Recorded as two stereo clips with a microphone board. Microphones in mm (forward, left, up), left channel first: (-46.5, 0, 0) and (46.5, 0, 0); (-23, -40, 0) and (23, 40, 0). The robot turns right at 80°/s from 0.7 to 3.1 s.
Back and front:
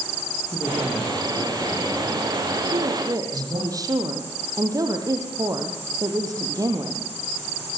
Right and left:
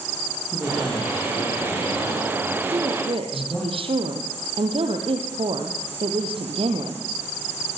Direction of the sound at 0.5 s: 130° left.